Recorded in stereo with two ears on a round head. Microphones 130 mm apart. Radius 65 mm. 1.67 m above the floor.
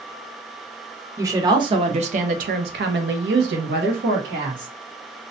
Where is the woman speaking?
20° right (ahead or behind), 1.1 m; by 4.7 s 65° right (ahead or behind), 1.6 m.